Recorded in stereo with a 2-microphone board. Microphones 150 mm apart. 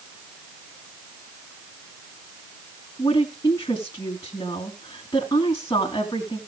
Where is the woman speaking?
25° left (ahead or behind), 3.5 m.